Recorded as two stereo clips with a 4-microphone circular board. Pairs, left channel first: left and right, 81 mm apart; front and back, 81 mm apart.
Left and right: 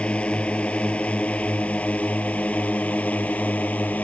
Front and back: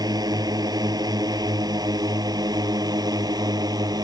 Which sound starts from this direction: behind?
A drone, at 0.0 s.